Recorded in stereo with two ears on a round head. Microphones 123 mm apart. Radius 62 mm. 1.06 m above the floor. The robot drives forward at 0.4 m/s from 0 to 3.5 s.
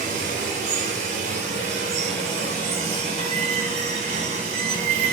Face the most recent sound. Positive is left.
turn(degrees=-50)  # may be behind; listen again after turning